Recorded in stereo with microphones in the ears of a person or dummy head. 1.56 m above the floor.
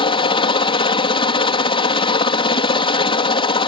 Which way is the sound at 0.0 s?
25° left (ahead or behind).